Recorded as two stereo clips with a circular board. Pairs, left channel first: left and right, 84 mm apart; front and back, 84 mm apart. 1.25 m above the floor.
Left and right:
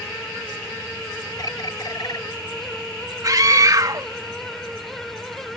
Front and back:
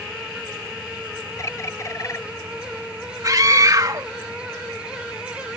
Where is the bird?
55° left.